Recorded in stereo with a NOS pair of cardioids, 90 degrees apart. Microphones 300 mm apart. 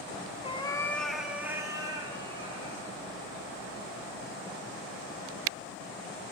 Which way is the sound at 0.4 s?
20° left.